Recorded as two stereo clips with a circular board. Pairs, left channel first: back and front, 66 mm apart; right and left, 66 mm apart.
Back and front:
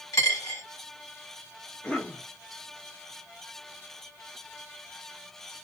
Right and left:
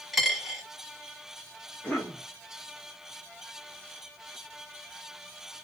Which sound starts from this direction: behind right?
A cough, at 1.8 s.